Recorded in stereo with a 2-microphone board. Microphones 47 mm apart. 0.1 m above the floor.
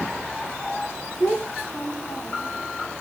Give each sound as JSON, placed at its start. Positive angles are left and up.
{"t": 1.2, "sound": "a child speaking", "side_deg": 40, "distance_m": 4.5}